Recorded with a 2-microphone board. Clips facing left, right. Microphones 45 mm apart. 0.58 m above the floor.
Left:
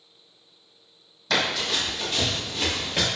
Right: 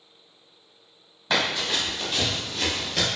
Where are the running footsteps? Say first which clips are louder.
Even; 25° right (ahead or behind), 1.7 m; by 3.1 s 25° left (ahead or behind), 0.8 m.